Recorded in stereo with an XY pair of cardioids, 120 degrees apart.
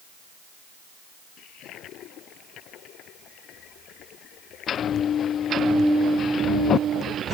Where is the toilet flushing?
65° left.